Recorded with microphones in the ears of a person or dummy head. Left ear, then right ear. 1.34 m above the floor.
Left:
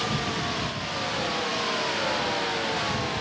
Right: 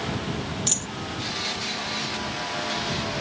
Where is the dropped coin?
75° right (ahead or behind).